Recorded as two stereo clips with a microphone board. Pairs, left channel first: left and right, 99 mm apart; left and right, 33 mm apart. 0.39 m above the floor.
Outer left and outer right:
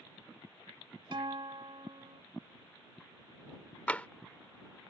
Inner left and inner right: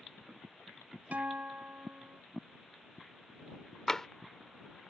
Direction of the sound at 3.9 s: 15° left (ahead or behind).